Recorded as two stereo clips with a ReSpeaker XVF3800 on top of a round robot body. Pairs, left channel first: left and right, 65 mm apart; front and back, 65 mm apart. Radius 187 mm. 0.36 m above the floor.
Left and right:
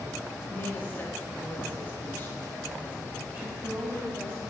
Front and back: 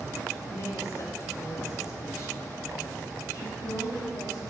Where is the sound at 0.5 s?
30° left, 1.7 m.